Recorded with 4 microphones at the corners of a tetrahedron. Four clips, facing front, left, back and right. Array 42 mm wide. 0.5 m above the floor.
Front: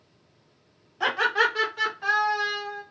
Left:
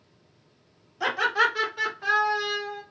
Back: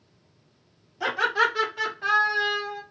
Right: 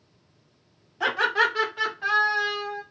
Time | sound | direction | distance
1.0 | laughter | 35° right | 1.5 m